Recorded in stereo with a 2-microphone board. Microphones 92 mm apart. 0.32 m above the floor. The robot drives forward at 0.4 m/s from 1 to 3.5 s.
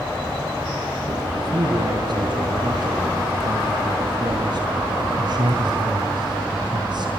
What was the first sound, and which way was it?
A man speaking, 45° right (ahead or behind).